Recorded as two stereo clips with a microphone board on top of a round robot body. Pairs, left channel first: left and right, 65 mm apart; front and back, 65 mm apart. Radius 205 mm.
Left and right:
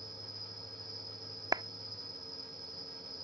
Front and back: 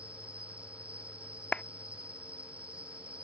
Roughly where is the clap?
Right.